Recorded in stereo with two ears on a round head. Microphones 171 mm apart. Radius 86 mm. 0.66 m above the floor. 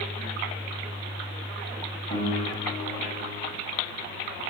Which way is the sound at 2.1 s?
35° left (ahead or behind).